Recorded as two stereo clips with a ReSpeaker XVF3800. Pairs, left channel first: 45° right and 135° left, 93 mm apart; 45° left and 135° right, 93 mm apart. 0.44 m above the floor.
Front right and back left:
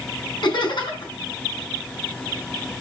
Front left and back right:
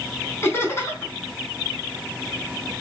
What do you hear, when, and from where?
0.4 s laughter: 15° right, 4 m